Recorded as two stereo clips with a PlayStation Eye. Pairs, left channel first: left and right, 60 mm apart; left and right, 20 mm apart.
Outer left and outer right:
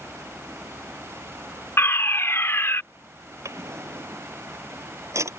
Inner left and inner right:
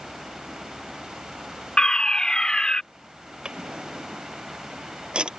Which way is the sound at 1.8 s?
45° left (ahead or behind).